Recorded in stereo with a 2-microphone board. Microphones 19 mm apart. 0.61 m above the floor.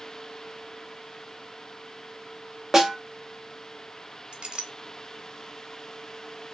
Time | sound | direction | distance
2.7 | a snare drum | 15° right (ahead or behind) | 1.0 m
4.3 | a clink | 60° right (ahead or behind) | 0.8 m